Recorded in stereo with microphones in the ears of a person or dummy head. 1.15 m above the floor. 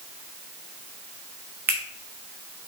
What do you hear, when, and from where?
1.7 s a finger snap: 10° right (ahead or behind), 0.9 m